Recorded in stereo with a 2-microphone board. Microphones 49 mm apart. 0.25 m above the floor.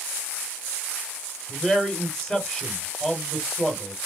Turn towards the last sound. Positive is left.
turn(degrees=0)  # may be behind; listen again after turning